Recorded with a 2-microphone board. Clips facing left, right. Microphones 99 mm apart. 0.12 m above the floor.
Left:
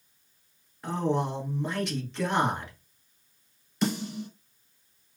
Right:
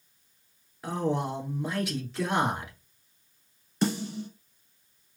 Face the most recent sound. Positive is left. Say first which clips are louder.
# right 1 dB
turn(degrees=-30)  # may be behind; listen again after turning